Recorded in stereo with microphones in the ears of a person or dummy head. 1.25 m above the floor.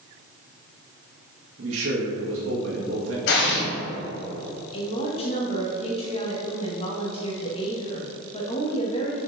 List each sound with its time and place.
1.6 s a man speaking: 85° right, 1.6 m
3.3 s an explosion: 55° left (ahead or behind), 1.8 m
4.7 s a woman speaking: 30° left (ahead or behind), 1.5 m